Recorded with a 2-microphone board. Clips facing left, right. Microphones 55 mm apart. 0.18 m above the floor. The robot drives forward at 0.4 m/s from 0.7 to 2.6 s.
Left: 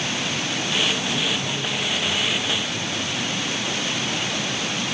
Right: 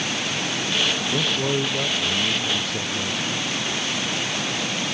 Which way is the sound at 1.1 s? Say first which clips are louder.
Right 2 dB; 60° right (ahead or behind).